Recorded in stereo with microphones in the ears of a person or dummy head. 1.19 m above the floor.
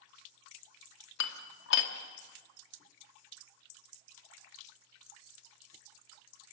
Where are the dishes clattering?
70° left (ahead or behind), 1.8 m.